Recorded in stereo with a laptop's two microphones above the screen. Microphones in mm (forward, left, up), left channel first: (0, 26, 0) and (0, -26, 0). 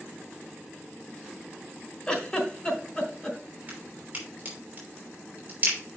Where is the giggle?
20° left (ahead or behind), 2.5 m.